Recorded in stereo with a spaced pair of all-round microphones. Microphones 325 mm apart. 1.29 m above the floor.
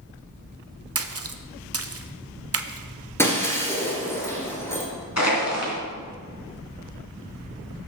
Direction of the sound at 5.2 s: 50° left (ahead or behind).